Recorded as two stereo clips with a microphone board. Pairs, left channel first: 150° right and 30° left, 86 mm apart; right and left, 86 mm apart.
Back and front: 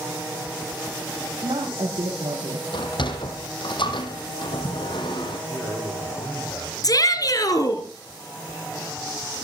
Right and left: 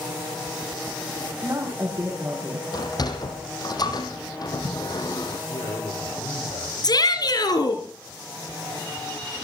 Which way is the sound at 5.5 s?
85° right.